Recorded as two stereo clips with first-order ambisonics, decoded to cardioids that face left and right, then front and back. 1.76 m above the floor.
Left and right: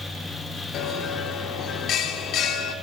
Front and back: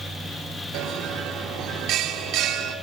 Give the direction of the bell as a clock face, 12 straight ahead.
7 o'clock.